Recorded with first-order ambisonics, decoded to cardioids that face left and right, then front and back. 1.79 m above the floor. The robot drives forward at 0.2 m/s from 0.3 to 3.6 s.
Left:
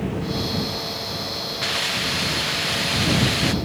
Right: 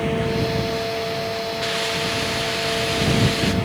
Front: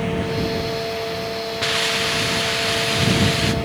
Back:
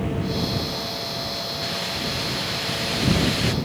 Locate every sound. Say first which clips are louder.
1.6 s a hiss: left 2 dB, front 11 dB; 10° left; by 3.5 s 50° left